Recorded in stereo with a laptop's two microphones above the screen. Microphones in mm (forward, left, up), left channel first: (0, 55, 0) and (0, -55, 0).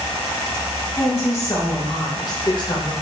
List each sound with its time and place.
1.0 s a woman speaking: 25° left (ahead or behind), 1.6 m; by 2.9 s 45° left (ahead or behind), 0.8 m